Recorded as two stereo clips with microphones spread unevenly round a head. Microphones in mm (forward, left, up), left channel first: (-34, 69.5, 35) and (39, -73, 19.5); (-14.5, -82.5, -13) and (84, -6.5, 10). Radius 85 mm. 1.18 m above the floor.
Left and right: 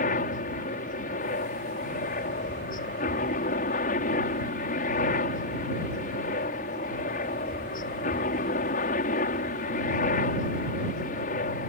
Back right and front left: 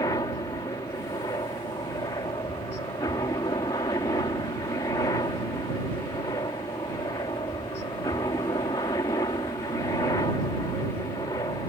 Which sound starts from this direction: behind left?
A helicopter, at 0.0 s.